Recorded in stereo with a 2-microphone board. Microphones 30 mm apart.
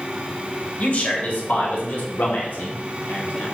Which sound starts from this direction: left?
A man speaking, at 0.8 s.